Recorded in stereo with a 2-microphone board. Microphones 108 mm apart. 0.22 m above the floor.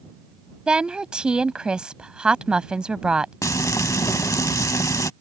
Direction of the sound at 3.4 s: 30° left (ahead or behind).